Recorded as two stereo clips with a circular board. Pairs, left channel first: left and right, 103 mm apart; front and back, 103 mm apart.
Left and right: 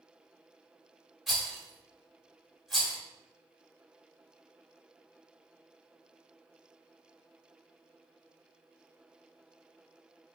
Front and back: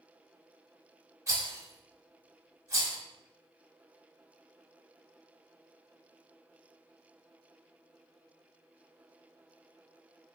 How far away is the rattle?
About 1.3 m.